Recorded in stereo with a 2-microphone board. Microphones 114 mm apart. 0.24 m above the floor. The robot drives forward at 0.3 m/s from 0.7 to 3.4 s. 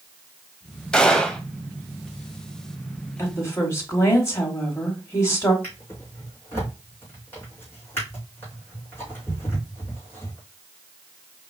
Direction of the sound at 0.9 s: 5° left (ahead or behind).